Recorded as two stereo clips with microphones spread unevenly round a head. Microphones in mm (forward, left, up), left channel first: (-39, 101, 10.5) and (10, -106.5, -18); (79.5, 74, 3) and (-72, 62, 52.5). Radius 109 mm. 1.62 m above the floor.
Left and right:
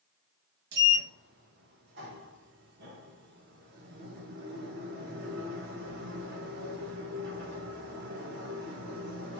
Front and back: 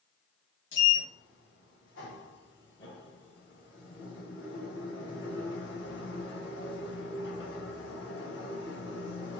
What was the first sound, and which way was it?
A sliding door, 35° right.